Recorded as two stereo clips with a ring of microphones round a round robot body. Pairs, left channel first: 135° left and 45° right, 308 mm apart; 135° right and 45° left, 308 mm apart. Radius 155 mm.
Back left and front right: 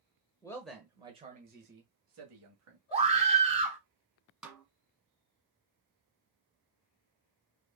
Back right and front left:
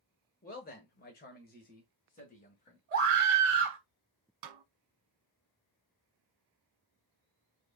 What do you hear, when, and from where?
0.4 s a man speaking: 160° right, 1.2 m; by 2.8 s 70° right, 2 m
2.9 s a scream: 15° left, 1.2 m
4.4 s a snare drum: 45° left, 1.1 m